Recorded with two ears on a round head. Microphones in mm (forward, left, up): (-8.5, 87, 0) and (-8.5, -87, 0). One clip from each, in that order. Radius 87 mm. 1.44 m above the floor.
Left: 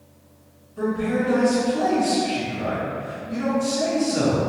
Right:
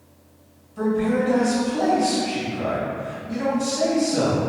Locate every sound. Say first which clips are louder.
0.8 s a man speaking: right 2 dB; 60° right (ahead or behind), 1.4 m